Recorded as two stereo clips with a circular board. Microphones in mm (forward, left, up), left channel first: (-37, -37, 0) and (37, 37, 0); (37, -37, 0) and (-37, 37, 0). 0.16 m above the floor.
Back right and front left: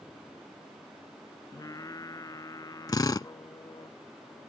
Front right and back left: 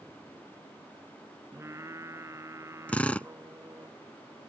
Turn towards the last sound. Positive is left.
turn(degrees=-115)